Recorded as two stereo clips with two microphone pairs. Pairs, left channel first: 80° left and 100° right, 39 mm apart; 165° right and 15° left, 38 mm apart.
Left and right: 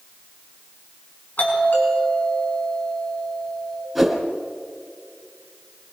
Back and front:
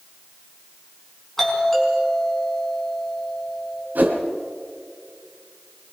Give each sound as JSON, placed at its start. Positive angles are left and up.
{"t": 1.4, "sound": "a doorbell", "azimuth_deg": 110, "distance_m": 4.5}
{"t": 4.0, "sound": "a whoosh", "azimuth_deg": -20, "distance_m": 2.0}